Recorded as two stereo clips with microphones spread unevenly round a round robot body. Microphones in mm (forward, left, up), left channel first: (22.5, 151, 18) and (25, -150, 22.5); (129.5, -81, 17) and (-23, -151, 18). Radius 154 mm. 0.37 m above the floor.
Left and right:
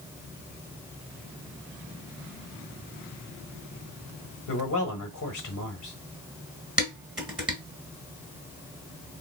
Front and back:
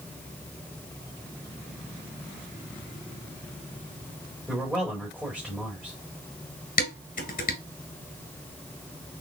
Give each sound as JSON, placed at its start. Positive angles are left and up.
{"t": 4.5, "sound": "a man speaking", "azimuth_deg": 110, "distance_m": 1.1}
{"t": 6.8, "sound": "dishes clattering", "azimuth_deg": -5, "distance_m": 2.0}